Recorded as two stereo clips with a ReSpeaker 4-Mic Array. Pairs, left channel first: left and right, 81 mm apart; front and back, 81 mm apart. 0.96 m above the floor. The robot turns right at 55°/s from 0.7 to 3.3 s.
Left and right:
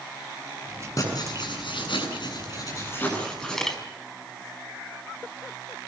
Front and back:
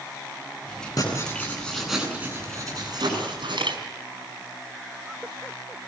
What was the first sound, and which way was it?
Writing, 40° left.